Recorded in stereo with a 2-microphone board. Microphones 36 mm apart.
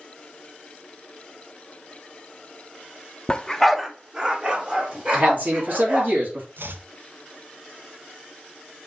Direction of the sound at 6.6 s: 80° right.